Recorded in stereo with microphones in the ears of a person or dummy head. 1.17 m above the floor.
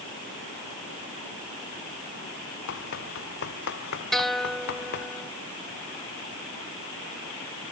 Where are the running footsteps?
60° left (ahead or behind); by 5.1 s 55° left (ahead or behind).